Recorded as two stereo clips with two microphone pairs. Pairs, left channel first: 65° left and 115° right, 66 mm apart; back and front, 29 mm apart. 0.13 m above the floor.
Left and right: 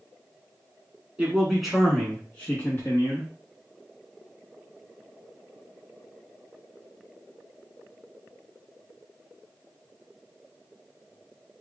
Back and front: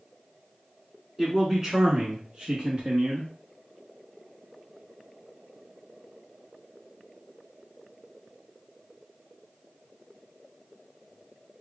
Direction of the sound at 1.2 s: 60° right.